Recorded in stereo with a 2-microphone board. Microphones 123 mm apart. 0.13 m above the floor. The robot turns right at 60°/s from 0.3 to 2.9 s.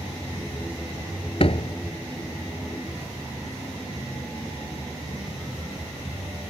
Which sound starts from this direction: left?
A door slam, at 1.4 s.